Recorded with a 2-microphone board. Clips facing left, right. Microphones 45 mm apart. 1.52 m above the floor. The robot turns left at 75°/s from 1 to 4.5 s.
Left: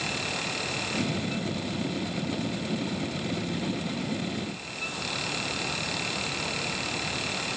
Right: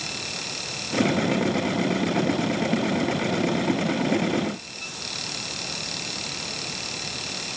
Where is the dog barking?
No dog barking in this recording.